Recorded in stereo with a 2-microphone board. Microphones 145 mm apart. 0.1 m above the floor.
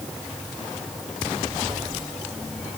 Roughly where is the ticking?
No ticking in this recording.